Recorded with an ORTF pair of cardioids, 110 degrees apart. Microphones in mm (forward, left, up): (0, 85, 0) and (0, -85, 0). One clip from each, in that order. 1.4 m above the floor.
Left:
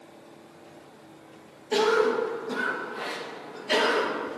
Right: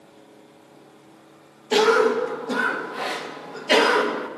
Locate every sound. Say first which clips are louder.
1.7 s a cough: right 5 dB; 35° right, 1.1 m